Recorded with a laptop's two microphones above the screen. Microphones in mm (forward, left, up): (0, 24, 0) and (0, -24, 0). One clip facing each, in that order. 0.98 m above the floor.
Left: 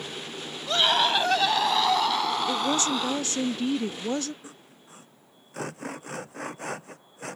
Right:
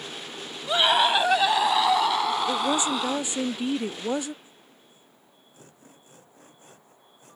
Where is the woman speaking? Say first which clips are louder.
Right 1 dB; 15° right (ahead or behind).